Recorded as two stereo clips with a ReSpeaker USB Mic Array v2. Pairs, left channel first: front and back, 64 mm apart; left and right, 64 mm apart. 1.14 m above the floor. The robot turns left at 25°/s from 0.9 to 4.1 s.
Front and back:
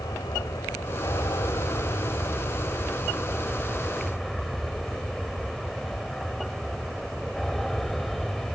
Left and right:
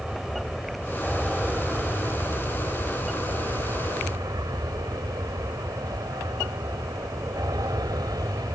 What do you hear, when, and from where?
0.0 s an aircraft: 5° right; by 8.5 s 85° right